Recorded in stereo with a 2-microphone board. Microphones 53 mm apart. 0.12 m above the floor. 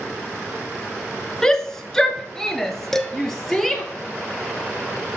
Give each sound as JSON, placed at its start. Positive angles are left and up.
{"t": 1.4, "sound": "a shout", "side_deg": 10, "distance_m": 1.4}
{"t": 2.9, "sound": "dishes clattering", "side_deg": 5, "distance_m": 1.1}